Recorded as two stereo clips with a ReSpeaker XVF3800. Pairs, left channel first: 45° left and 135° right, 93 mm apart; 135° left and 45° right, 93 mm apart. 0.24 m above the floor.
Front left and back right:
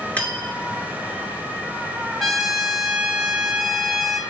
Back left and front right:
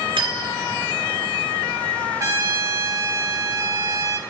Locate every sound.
0.2 s cutlery clinking: 30° right, 2 m
2.2 s a trumpet: 50° right, 1.5 m